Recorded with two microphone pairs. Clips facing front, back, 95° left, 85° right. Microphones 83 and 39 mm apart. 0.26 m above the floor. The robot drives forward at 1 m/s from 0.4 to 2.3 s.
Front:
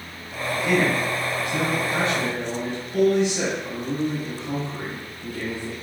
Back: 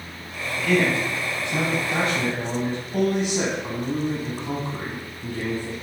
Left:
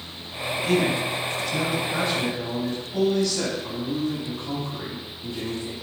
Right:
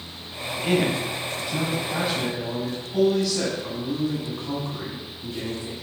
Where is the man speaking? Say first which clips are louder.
Even, even; 45° right, 1.1 m; by 5.7 s 160° right, 1.6 m.